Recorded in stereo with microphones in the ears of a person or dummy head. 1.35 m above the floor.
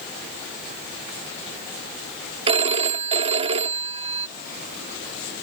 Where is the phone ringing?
35° right (ahead or behind).